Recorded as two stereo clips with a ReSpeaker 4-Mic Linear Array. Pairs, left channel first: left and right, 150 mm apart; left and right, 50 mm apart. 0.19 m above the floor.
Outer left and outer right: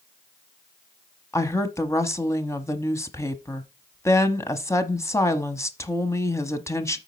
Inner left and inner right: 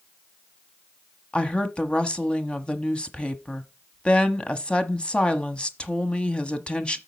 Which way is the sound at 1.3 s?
20° left (ahead or behind).